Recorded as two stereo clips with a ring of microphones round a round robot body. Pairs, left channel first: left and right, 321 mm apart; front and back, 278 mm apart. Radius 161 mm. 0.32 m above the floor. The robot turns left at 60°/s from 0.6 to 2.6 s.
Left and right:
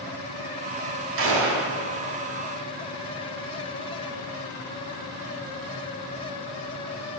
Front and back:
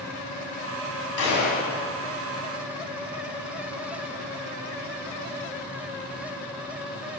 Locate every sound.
1.2 s a gunshot: 45° right, 2.5 m; by 1.7 s 75° right, 2.5 m